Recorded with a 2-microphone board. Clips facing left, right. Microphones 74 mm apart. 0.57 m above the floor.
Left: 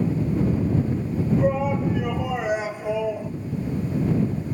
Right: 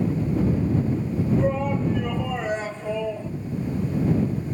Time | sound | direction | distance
1.4 | a shout | 10° left (ahead or behind) | ?